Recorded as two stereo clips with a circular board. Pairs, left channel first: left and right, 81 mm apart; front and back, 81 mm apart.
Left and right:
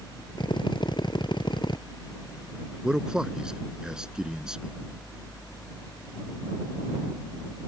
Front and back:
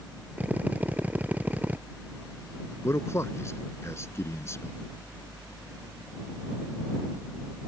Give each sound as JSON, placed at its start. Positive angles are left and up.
{"t": 0.4, "sound": "a drill", "azimuth_deg": 110}
{"t": 2.8, "sound": "a man speaking", "azimuth_deg": -15}